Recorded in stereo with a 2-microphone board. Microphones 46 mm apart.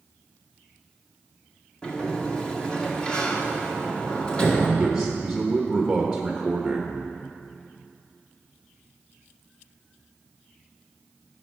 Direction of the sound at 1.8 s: 20° left (ahead or behind).